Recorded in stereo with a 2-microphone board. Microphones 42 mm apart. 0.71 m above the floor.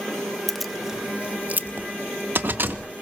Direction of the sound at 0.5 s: 10° left (ahead or behind).